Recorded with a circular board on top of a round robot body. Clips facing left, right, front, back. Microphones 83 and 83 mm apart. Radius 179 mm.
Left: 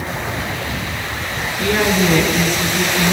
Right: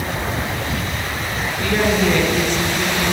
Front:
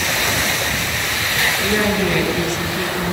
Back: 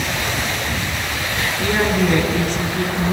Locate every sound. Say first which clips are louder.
1.6 s a woman speaking: left 1 dB, back 2 dB; 130° left, 8.5 m